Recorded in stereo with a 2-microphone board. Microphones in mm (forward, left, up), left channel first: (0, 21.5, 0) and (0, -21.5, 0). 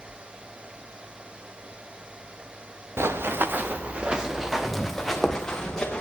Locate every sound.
3.0 s running footsteps: 65° right (ahead or behind), 1.3 m; by 6.0 s 20° left (ahead or behind), 2.5 m